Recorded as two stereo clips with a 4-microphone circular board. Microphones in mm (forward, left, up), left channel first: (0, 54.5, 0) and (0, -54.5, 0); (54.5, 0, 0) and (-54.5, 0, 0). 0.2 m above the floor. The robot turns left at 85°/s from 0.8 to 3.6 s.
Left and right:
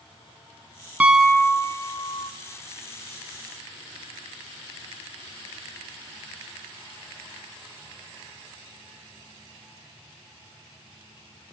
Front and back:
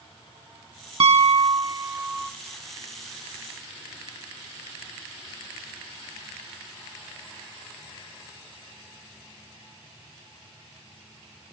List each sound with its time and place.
1.0 s a piano: 165° right, 0.7 m; by 2.3 s 85° left, 0.7 m